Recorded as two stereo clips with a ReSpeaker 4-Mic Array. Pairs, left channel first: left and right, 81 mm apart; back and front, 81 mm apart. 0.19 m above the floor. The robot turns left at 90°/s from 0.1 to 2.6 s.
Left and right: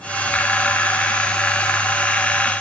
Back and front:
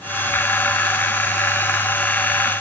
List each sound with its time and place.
Only background noise.